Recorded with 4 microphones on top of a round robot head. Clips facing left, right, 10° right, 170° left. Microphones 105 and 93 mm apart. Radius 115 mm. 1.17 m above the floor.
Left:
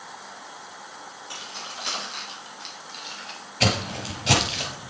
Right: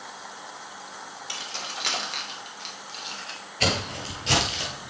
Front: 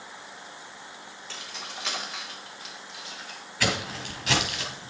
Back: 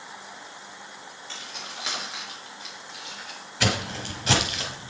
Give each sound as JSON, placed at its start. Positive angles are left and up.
{"t": 1.3, "sound": "keys jangling", "azimuth_deg": -100, "distance_m": 3.0}
{"t": 3.6, "sound": "footsteps", "azimuth_deg": 110, "distance_m": 1.3}